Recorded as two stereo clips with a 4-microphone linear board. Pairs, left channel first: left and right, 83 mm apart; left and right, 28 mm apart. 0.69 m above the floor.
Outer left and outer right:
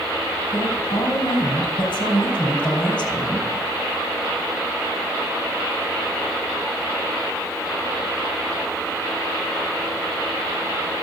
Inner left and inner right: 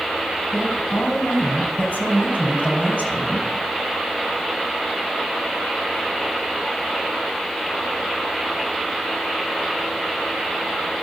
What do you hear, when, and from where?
0.5 s a woman speaking: 75° left (ahead or behind), 4 m